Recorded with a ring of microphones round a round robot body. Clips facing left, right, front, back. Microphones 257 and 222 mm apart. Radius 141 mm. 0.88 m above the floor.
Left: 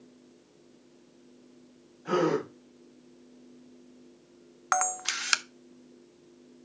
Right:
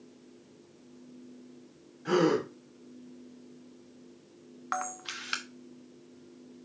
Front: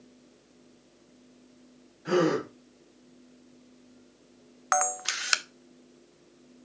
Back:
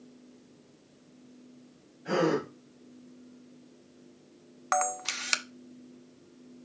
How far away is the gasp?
About 3 m.